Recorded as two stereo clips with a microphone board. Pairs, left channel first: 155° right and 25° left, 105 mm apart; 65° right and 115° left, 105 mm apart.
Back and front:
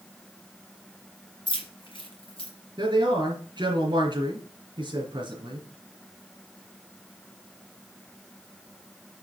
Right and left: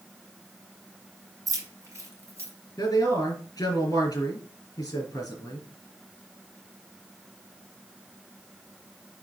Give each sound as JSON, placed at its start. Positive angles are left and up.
{"t": 1.5, "sound": "keys jangling", "azimuth_deg": 165, "distance_m": 2.0}
{"t": 2.8, "sound": "a man speaking", "azimuth_deg": -15, "distance_m": 3.0}